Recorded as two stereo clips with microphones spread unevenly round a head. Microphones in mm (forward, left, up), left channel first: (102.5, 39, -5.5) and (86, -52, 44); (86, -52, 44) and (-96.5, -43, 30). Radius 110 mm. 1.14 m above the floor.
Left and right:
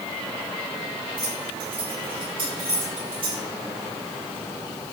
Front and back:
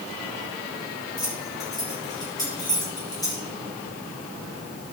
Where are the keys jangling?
75° right, 6.5 m.